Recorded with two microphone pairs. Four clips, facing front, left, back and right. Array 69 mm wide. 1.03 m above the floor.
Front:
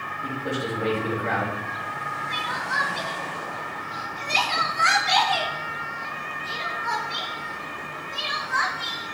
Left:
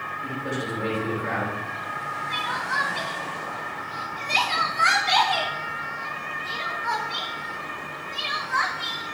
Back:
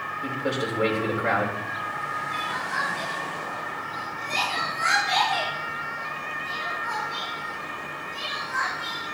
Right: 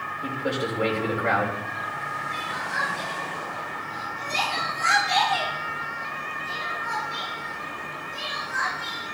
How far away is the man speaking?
About 4.5 m.